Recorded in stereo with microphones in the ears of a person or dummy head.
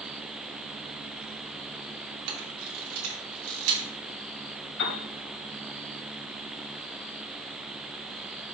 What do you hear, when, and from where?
2.3 s a camera shutter: 70° right (ahead or behind), 2.5 m
4.8 s a piano: 70° left (ahead or behind), 2.5 m